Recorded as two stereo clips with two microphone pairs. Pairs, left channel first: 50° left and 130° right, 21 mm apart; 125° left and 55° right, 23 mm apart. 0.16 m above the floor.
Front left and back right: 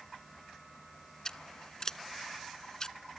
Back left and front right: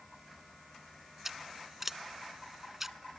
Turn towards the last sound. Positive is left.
turn(degrees=15)